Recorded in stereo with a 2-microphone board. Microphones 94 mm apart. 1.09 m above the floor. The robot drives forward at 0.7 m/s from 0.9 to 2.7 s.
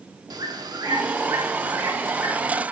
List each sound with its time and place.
0.3 s a bird: 45° right (ahead or behind), 0.9 m; by 2.6 s 20° right (ahead or behind), 1.9 m